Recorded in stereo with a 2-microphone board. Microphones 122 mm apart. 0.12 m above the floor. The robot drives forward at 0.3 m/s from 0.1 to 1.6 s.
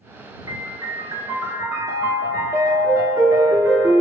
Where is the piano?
35° right (ahead or behind), 0.6 m; by 4.0 s 25° right (ahead or behind), 0.7 m.